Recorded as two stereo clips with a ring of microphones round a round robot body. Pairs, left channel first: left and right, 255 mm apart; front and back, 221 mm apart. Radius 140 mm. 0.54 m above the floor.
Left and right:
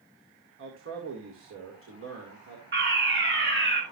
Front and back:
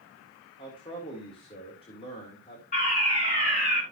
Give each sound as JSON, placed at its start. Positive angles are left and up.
{"t": 0.6, "sound": "a man speaking", "azimuth_deg": -65, "distance_m": 2.0}
{"t": 2.7, "sound": "a fire alarm", "azimuth_deg": -55, "distance_m": 3.5}